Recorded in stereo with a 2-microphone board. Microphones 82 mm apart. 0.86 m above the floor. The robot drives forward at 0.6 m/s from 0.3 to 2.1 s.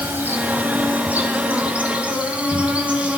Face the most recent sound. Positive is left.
turn(degrees=-20)  # may be behind; listen again after turning